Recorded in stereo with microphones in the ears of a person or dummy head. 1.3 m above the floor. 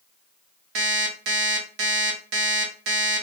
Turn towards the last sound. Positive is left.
turn(degrees=-65)  # may be behind; listen again after turning